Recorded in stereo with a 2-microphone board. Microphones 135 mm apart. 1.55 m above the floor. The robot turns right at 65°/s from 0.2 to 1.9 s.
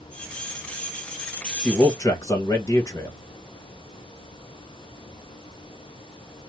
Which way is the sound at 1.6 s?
5° left (ahead or behind).